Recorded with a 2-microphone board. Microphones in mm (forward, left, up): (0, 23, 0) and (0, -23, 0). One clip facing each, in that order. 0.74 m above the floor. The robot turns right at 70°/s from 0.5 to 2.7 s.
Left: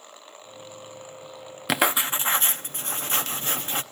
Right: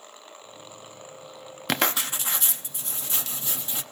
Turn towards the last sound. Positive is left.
turn(degrees=80)